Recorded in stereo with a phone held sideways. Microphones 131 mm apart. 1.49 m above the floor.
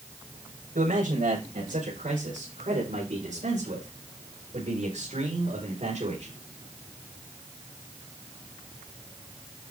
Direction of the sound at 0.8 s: 85° right.